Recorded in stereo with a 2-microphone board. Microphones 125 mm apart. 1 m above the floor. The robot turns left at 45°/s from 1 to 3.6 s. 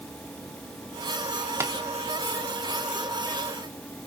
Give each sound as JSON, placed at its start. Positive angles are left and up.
{"t": 1.6, "sound": "tapping", "side_deg": -25, "distance_m": 1.0}